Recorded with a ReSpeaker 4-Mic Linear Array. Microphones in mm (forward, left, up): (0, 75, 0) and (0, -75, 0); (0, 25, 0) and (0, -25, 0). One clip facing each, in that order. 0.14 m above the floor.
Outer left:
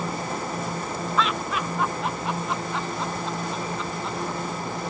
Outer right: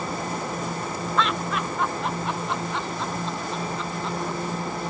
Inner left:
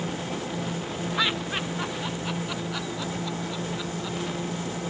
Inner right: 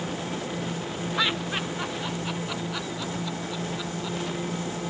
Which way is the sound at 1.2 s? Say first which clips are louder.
Outer right 1 dB, even; centre (ahead or behind).